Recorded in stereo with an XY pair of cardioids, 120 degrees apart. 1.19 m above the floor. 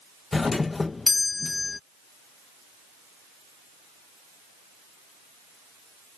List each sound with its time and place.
0.3 s a doorbell: 20° left